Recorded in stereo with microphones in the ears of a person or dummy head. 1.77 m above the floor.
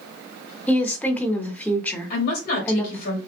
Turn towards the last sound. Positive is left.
turn(degrees=50)  # may be behind; listen again after turning